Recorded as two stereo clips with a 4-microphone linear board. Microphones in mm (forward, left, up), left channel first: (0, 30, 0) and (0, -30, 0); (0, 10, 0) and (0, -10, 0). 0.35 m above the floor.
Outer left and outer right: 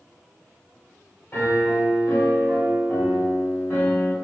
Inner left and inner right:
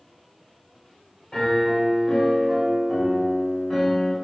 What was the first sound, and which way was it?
A piano, 40° left (ahead or behind).